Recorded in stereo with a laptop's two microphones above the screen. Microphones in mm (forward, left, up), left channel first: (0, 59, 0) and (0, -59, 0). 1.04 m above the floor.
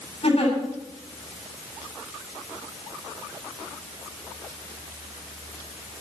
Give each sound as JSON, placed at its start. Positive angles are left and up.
{"t": 0.2, "sound": "a giggle", "side_deg": 65, "distance_m": 8.5}